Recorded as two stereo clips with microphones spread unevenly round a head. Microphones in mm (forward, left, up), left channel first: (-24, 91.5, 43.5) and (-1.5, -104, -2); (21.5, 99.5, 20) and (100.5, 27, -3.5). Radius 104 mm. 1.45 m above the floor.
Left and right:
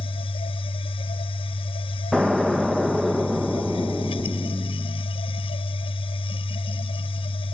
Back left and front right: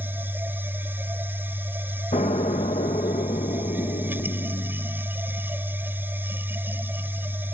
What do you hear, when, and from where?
0.0 s a machine running: 30° left
2.1 s an explosion: straight behind